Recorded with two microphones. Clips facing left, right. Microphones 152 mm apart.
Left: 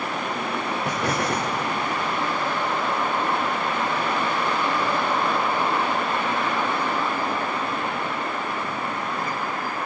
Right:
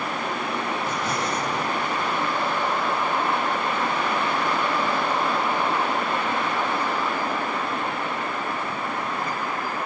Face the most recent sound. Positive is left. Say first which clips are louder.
# left 2 dB
turn(degrees=70)  # may be behind; listen again after turning